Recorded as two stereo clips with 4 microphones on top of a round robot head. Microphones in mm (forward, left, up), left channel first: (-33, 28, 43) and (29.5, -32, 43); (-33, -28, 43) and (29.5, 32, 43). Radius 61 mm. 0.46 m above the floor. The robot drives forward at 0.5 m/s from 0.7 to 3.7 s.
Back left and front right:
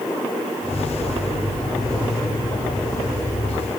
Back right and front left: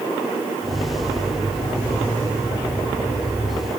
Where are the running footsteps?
No running footsteps in this recording.